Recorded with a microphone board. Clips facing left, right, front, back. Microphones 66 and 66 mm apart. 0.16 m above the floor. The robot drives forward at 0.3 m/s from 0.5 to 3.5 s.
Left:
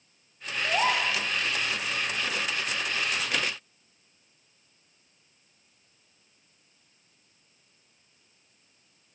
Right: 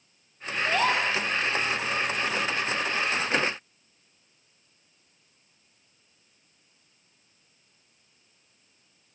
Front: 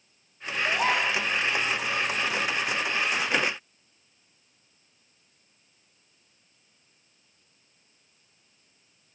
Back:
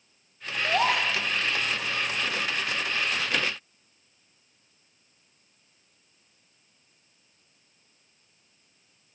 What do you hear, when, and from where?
0.6 s a gasp: 165° left, 1.2 m